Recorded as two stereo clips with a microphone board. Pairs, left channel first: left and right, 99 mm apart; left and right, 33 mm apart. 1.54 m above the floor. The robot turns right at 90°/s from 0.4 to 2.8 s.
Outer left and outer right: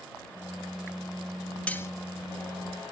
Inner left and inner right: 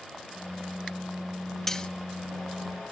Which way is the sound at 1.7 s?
15° left (ahead or behind).